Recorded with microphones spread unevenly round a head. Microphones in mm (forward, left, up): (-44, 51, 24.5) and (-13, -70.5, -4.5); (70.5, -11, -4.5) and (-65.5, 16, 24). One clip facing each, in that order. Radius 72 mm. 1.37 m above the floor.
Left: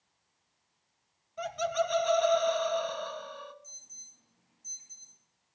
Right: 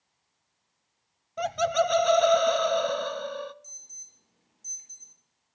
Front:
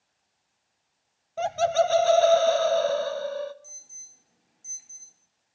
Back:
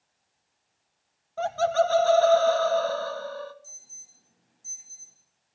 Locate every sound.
1.4 s laughter: 75° right, 0.5 m
3.6 s an alarm: 75° right, 4 m